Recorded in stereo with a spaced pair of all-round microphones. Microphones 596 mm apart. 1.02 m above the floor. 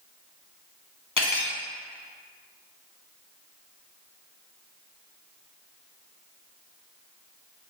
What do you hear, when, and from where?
1.2 s cutlery clinking: 35° left (ahead or behind), 0.6 m